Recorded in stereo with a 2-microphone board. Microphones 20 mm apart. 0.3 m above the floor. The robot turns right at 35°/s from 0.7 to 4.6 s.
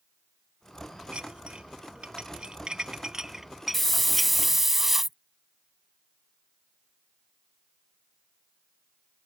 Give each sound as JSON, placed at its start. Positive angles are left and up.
{"t": 1.1, "sound": "dishes clattering", "side_deg": -60}
{"t": 3.7, "sound": "a hiss", "azimuth_deg": 160}